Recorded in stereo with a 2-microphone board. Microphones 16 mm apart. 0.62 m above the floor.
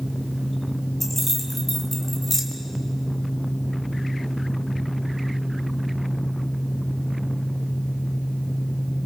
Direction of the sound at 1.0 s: 15° left (ahead or behind).